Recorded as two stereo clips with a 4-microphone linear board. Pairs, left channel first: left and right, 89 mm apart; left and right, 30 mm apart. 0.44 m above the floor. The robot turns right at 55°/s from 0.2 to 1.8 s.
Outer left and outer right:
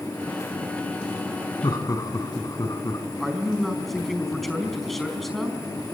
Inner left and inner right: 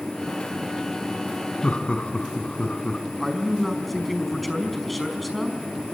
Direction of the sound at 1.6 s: 50° left (ahead or behind).